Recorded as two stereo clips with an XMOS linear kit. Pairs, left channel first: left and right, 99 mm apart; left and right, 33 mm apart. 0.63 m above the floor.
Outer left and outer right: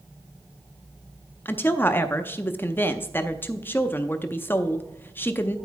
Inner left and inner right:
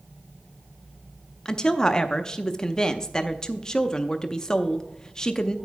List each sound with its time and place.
1.4 s a woman speaking: 20° left (ahead or behind), 0.5 m